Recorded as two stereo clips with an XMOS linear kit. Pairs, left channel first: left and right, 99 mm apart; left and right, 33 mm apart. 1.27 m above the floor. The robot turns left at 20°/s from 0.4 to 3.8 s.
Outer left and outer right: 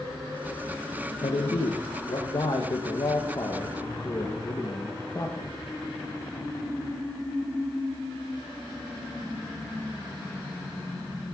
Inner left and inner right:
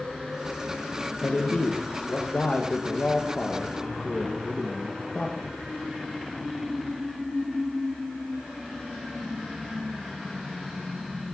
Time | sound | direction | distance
1.2 | a man speaking | 85° left | 1.6 m